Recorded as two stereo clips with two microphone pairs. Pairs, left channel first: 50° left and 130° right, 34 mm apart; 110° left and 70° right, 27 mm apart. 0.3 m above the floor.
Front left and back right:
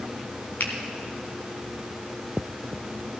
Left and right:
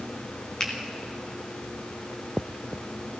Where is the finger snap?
55° left, 1.9 m.